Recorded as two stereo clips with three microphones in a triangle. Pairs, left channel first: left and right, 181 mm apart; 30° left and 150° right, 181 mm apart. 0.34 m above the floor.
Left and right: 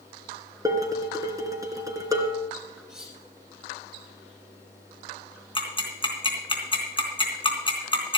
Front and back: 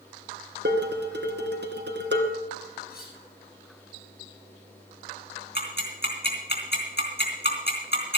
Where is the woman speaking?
I don't hear a woman speaking.